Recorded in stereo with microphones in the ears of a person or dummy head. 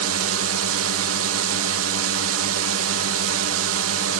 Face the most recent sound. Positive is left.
turn(degrees=-80)